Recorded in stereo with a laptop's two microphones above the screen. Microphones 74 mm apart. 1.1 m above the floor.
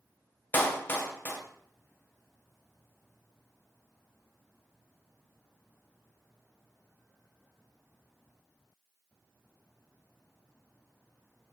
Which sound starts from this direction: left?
A clap, at 0.5 s.